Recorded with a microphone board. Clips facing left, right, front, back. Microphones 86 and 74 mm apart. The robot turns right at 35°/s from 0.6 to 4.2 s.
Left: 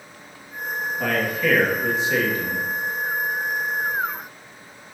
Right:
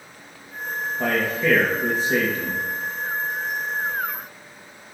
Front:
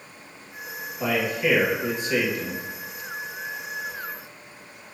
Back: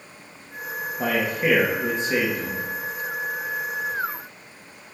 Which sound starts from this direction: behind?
A man speaking, at 1.0 s.